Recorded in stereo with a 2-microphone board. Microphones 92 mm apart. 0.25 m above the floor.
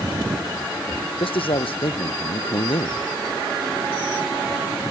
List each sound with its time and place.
1.2 s a man speaking: 80° left